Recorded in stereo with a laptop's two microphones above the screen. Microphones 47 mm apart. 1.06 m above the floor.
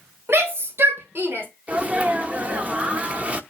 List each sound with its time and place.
0.3 s a shout: 60° right (ahead or behind), 4.5 m; by 1.5 s 50° right (ahead or behind), 3.5 m
1.7 s a sneeze: 30° right (ahead or behind), 0.8 m